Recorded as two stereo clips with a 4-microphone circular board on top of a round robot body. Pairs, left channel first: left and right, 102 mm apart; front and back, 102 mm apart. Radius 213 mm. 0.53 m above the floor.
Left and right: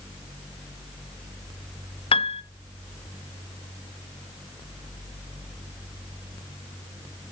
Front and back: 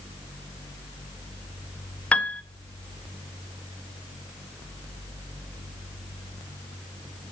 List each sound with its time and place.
2.1 s a piano: 75° left, 0.6 m